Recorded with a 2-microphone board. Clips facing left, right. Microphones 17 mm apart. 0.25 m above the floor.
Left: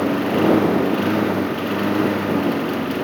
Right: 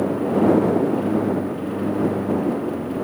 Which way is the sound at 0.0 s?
75° left (ahead or behind).